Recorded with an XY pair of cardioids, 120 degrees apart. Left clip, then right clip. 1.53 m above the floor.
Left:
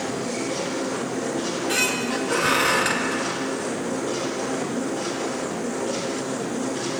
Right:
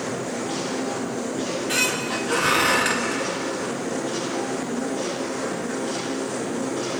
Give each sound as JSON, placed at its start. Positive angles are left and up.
{"t": 1.4, "sound": "a squeak", "azimuth_deg": -5, "distance_m": 1.7}